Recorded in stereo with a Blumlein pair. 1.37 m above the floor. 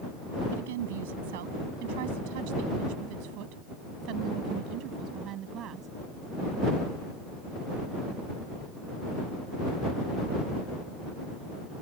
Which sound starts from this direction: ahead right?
A woman speaking, at 0.5 s.